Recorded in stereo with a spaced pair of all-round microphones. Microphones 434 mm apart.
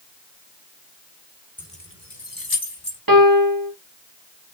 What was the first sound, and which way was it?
Keys jangling, 5° left (ahead or behind).